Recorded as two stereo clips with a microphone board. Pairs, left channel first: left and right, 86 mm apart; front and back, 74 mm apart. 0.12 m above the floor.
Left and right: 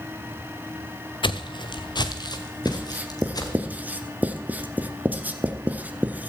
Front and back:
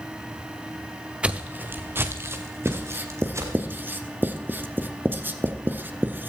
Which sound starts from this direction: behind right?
Writing, at 2.6 s.